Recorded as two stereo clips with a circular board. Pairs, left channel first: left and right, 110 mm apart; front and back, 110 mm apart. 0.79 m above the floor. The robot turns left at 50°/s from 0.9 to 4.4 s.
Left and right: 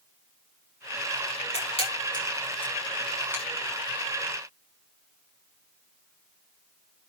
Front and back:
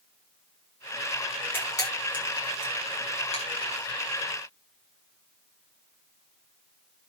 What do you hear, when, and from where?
1.5 s a camera shutter: 70° left, 7.5 m; by 3.4 s 25° right, 7.5 m